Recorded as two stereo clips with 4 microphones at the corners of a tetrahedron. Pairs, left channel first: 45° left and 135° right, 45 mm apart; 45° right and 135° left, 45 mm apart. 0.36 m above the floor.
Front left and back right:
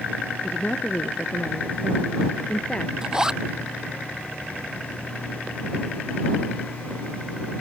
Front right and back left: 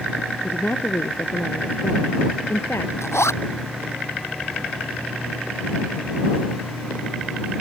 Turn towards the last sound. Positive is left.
turn(degrees=-60)